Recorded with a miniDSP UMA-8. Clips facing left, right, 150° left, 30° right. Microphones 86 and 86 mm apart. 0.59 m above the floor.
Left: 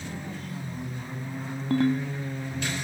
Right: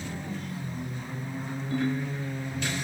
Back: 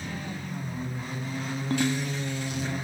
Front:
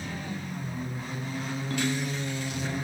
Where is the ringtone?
95° left, 2.5 m.